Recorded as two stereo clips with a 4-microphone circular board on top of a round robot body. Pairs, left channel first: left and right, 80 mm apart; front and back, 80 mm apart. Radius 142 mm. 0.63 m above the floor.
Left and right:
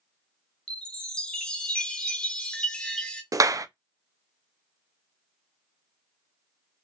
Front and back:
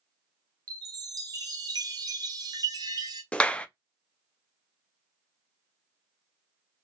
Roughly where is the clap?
Right.